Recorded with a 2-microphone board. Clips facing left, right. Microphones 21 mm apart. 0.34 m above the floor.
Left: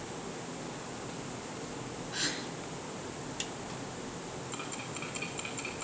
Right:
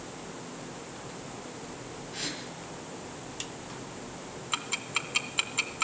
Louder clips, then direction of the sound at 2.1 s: Left 2 dB; 25° left (ahead or behind).